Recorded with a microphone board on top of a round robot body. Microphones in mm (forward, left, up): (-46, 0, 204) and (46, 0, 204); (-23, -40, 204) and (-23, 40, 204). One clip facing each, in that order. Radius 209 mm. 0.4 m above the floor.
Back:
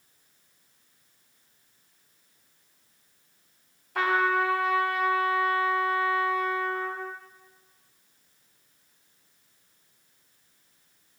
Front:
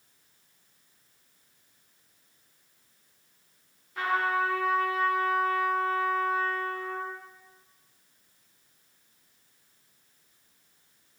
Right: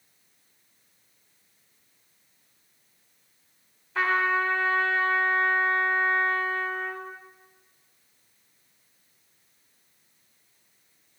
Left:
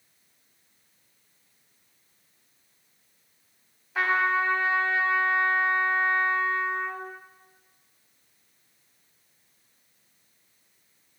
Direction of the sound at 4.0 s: 170° left.